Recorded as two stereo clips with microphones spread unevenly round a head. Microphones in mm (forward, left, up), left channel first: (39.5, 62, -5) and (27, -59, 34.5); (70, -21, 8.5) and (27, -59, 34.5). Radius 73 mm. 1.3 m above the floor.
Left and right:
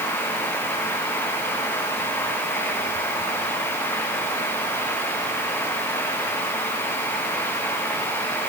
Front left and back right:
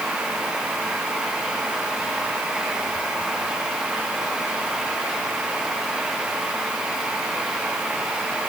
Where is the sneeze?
I don't hear a sneeze.